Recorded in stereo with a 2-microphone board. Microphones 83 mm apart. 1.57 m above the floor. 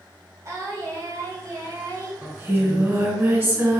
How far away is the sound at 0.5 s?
About 2.5 m.